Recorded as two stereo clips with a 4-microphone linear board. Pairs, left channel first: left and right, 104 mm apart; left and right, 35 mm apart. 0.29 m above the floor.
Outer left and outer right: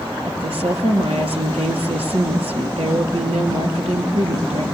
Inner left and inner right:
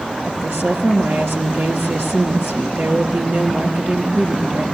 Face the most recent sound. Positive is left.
turn(degrees=-80)